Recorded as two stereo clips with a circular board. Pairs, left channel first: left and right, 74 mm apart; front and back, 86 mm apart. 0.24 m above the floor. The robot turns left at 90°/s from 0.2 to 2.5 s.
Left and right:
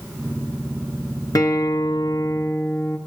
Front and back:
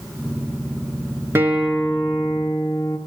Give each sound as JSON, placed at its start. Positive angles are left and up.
{"t": 1.4, "sound": "a guitar", "azimuth_deg": 120, "distance_m": 2.0}